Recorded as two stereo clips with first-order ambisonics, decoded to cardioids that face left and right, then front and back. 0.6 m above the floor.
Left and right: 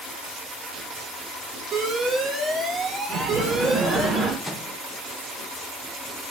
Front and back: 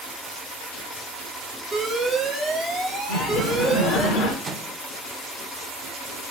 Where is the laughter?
15° right, 1.5 m.